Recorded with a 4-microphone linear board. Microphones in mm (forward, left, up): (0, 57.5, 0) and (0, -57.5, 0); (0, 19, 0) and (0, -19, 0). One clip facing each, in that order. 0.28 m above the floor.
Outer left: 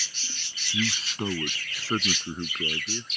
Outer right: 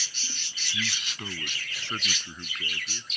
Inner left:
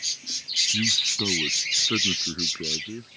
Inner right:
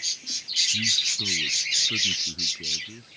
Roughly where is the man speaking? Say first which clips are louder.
Outer left 8 dB, inner left 1 dB; left.